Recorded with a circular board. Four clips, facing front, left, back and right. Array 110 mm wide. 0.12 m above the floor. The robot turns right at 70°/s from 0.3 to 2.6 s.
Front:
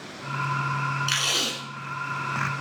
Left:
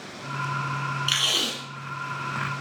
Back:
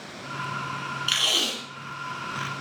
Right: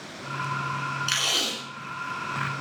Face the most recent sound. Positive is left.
turn(degrees=60)